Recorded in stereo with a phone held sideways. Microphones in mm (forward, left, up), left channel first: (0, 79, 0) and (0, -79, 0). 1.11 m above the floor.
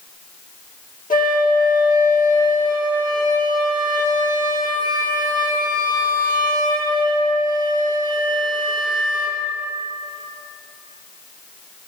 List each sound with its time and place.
1.1 s a flute: 55° left (ahead or behind), 1.1 m